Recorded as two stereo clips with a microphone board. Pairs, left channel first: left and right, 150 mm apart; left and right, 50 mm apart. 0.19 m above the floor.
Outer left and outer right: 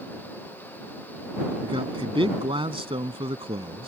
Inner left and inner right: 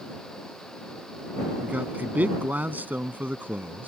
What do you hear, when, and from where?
1.6 s a man speaking: 35° right (ahead or behind)